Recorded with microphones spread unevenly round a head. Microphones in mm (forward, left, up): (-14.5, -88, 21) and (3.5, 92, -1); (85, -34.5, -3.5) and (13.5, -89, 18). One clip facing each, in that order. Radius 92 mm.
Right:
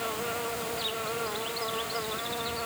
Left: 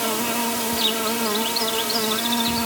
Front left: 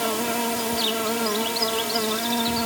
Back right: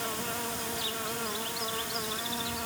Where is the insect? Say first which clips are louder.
Left 8 dB, front left 10 dB; 75° left.